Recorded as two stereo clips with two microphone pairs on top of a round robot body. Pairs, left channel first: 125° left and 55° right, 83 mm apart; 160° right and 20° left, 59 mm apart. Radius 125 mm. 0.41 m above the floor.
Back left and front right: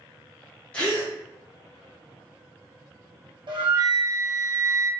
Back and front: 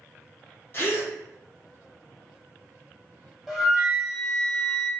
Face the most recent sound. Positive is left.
turn(degrees=-65)